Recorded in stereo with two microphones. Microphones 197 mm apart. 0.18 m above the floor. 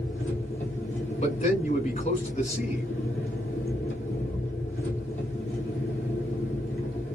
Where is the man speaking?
35° left (ahead or behind), 1.7 m.